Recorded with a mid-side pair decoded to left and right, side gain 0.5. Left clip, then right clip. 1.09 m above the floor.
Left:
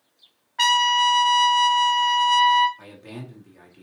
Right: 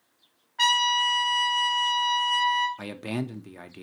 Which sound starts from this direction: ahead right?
A man speaking, at 2.8 s.